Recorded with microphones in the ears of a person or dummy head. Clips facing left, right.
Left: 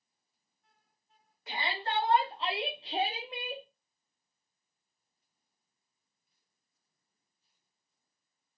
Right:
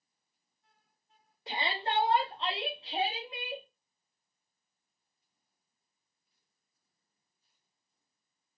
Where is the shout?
25° right (ahead or behind), 1.2 m; by 3.6 s 65° left (ahead or behind), 1.0 m.